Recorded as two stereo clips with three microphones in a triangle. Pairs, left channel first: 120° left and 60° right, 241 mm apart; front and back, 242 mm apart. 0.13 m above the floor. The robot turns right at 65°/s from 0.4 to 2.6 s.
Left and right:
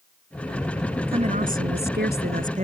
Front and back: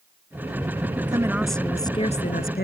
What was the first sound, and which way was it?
A woman speaking, 115° right.